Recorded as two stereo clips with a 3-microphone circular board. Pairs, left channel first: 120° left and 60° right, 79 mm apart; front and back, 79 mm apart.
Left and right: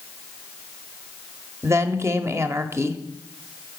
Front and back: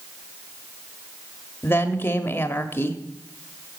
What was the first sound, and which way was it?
A woman speaking, 40° right.